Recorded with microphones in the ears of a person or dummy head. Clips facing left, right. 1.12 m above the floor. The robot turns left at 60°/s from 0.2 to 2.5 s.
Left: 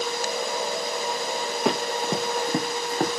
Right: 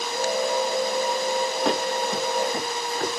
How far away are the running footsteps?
About 4 m.